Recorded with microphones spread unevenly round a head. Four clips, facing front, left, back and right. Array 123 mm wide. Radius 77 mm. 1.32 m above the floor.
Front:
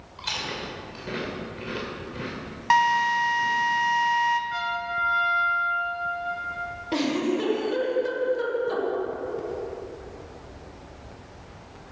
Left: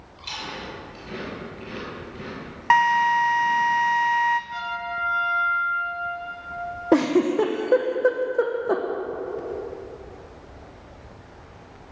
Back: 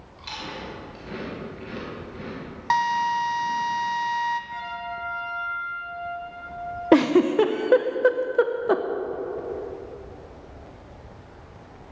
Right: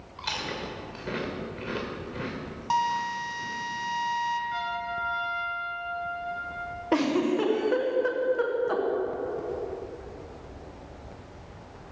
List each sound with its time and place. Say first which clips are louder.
0.2 s chewing: right 1 dB, front 2 dB; 75° right, 3 m
2.7 s a drill: left 9 dB, front 2 dB; 70° left, 1.0 m
4.5 s a trumpet: left 1 dB, front 4 dB; 15° left, 3 m
6.9 s a giggle: left 5 dB, back 8 dB; 140° left, 0.9 m